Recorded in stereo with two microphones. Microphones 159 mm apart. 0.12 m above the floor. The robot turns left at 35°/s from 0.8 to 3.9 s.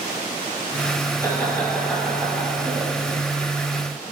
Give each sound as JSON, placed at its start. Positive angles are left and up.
{"t": 1.2, "sound": "laughter", "side_deg": 20, "distance_m": 2.0}